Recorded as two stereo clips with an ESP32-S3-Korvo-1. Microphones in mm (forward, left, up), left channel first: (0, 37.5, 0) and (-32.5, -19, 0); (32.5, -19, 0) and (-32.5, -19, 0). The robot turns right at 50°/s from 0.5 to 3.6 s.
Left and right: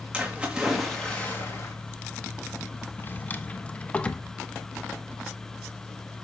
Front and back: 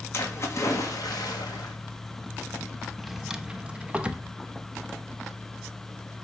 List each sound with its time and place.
0.1 s a splash: 45° right, 2 m; by 1.8 s 15° left, 2 m
3.0 s a drawer: 85° left, 0.7 m; by 4.2 s 120° left, 0.7 m